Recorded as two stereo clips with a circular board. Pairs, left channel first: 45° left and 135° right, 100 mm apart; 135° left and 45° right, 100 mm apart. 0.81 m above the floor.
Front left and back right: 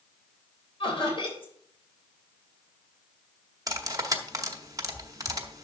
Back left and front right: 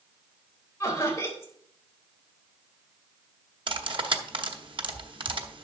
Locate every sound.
0.8 s laughter: 75° left, 3.5 m
3.7 s cutlery clinking: 80° right, 0.9 m